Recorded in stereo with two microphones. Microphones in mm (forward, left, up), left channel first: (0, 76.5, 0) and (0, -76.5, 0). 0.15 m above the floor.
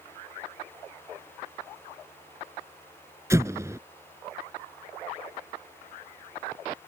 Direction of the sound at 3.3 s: 20° right (ahead or behind).